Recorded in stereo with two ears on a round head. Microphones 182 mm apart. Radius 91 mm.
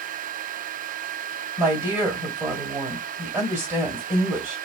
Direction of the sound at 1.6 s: 15° right (ahead or behind).